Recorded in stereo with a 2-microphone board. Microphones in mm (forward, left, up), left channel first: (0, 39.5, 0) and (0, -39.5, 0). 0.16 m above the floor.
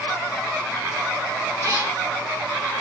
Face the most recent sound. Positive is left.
turn(degrees=-50)  # may be behind; listen again after turning